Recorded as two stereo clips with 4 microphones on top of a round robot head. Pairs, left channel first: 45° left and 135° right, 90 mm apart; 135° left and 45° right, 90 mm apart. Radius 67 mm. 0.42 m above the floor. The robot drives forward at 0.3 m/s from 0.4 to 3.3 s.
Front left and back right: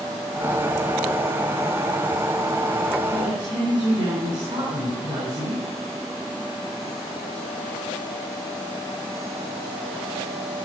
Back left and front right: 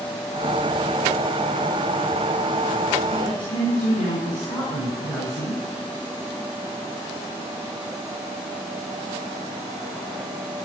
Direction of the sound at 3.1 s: 175° left.